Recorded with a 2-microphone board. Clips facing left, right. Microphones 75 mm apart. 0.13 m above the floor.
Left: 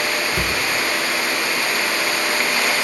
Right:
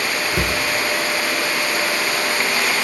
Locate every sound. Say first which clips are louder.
0.3 s a cupboard door: right 1 dB; 25° right (ahead or behind), 1.4 m